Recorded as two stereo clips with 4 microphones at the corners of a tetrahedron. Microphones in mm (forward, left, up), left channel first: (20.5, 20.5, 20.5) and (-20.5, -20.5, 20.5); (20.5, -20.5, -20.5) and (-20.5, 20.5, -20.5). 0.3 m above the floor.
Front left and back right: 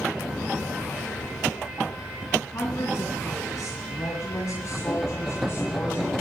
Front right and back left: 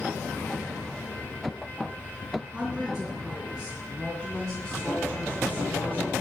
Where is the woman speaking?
55° left, 2.5 m; by 6.1 s straight ahead, 2.0 m.